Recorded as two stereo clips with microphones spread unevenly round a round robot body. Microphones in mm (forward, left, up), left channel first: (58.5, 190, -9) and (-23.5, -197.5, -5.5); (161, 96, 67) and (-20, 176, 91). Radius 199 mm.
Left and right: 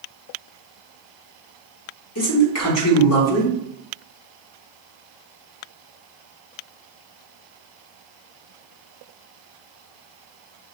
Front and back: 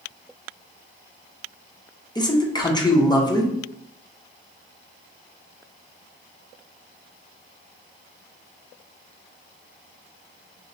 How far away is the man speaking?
About 1.2 m.